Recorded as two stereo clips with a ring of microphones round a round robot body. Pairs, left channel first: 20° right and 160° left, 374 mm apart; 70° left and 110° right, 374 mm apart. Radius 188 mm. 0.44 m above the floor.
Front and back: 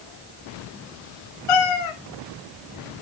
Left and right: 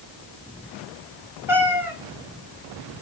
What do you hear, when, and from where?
1.5 s a cat meowing: 30° right, 1.1 m